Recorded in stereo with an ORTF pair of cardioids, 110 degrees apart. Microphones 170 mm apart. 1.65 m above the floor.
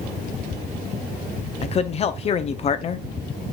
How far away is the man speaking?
About 0.7 m.